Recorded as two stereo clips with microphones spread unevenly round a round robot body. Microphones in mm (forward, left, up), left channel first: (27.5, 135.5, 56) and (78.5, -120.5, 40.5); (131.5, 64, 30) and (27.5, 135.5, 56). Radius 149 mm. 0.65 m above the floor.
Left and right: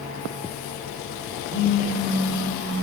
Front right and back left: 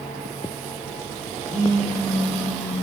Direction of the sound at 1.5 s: 50° left.